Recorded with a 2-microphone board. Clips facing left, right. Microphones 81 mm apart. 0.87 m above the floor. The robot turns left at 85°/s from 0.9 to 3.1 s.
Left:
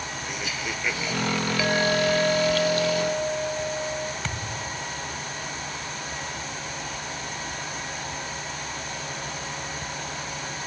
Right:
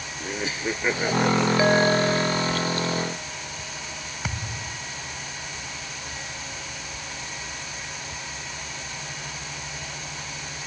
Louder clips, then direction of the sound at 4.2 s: Left 2 dB; 10° right (ahead or behind).